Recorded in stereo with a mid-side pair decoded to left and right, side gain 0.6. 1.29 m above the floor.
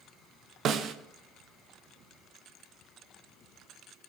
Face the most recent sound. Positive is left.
turn(degrees=-50)